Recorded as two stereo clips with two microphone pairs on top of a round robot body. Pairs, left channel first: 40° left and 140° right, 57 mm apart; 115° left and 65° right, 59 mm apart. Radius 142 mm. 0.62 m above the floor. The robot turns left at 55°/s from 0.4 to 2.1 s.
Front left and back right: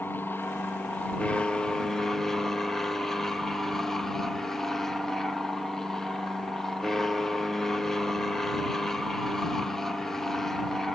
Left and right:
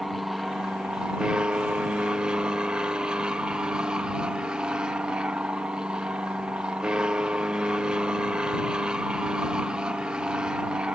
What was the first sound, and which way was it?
An aircraft, 5° left.